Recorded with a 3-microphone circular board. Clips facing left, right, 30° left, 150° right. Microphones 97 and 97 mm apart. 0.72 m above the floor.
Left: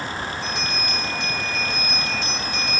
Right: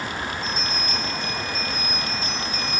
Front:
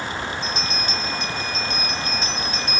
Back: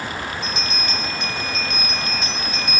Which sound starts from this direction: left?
A bell, at 0.4 s.